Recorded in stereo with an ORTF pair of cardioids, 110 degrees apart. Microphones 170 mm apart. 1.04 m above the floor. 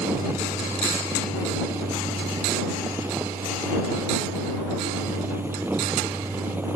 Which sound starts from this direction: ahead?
A fan, at 0.0 s.